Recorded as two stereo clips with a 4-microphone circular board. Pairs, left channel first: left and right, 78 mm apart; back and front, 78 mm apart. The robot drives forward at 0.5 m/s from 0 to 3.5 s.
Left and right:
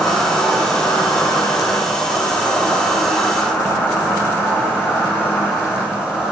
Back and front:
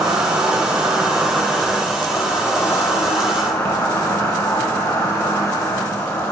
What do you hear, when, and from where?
0.0 s an insect: 35° left, 1.2 m; by 6.3 s 150° left, 1.4 m